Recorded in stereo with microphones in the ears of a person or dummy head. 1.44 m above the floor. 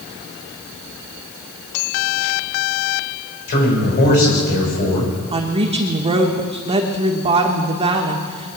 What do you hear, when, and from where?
3.5 s a man speaking: 55° left (ahead or behind), 6 m
5.3 s a woman speaking: 30° right (ahead or behind), 1.4 m